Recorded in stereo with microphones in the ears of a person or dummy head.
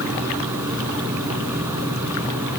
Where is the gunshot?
No gunshot in this recording.